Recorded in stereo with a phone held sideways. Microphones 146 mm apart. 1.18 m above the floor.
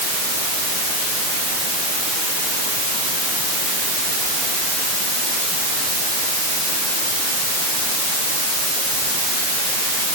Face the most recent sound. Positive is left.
No sound to turn to.